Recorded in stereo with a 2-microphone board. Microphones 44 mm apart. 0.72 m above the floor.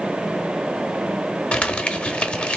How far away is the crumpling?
About 0.8 m.